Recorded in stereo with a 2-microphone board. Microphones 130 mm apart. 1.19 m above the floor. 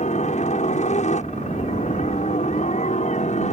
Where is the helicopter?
65° left (ahead or behind).